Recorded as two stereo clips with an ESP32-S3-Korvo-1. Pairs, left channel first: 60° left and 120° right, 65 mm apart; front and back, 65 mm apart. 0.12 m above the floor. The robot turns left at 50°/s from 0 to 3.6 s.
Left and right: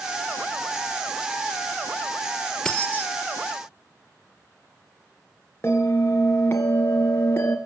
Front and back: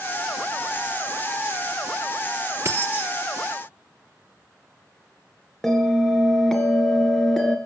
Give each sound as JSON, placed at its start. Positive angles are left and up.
{"t": 2.6, "sound": "keys jangling", "azimuth_deg": 140, "distance_m": 1.5}
{"t": 5.6, "sound": "a bell", "azimuth_deg": 85, "distance_m": 1.3}